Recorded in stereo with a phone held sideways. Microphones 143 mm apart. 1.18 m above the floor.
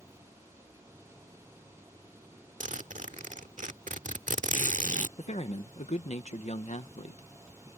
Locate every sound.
0.0 s an engine running: 15° right (ahead or behind)
2.6 s a zipper: 55° right (ahead or behind)
5.2 s a man speaking: 50° left (ahead or behind)